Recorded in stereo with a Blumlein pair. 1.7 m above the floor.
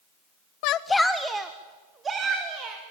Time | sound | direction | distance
0.6 | a shout | 50° left | 0.5 m